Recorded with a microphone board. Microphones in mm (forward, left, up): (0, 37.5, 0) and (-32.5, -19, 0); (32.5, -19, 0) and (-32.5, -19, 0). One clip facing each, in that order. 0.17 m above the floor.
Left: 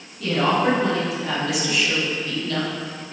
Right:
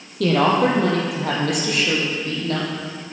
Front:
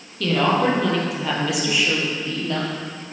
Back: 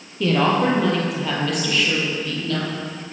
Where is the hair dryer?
No hair dryer in this recording.